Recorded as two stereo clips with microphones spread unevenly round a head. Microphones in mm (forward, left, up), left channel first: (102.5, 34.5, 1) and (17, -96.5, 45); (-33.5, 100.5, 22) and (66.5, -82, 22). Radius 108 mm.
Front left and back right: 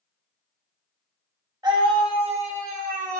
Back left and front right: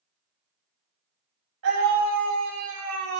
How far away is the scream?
About 3.5 m.